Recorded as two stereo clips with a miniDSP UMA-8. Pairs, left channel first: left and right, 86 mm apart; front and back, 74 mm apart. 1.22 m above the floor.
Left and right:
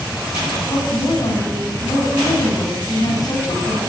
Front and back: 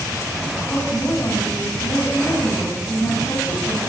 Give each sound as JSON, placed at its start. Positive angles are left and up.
{"t": 0.7, "sound": "a woman speaking", "azimuth_deg": 45, "distance_m": 8.5}